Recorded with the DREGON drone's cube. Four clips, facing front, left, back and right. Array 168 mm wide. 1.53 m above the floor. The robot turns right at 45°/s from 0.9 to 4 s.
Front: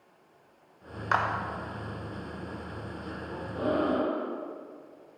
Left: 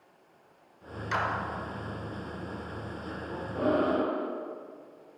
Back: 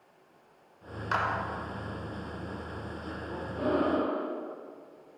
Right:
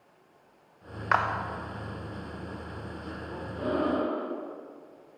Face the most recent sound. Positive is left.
turn(degrees=85)